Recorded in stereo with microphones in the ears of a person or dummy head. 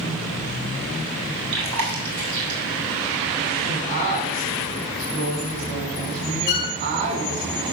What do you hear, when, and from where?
1.5 s chewing: 75° right (ahead or behind), 4 m
3.6 s a woman speaking: 45° right (ahead or behind), 5 m
6.5 s a violin: 50° left (ahead or behind), 1.8 m